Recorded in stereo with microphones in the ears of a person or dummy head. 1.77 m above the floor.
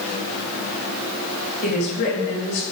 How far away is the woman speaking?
About 4 m.